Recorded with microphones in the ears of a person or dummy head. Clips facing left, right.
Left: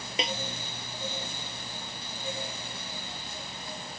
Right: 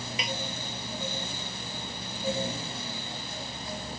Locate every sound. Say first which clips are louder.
0.2 s a snare drum: left 4 dB; 25° left (ahead or behind)